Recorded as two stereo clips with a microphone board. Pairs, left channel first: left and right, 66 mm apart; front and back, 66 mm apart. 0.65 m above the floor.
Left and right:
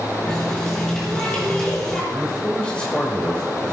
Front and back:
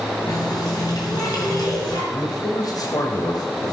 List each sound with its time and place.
0.3 s a running tap: 15° left, 5.5 m
2.1 s a man speaking: 15° left, 2.5 m